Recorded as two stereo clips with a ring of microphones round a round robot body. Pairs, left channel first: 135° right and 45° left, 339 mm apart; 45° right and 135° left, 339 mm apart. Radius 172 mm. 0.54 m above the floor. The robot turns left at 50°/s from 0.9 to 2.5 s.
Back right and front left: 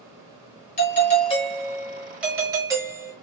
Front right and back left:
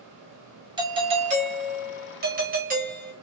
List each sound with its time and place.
0.8 s a doorbell: 165° right, 1.2 m; by 3.1 s 115° left, 1.2 m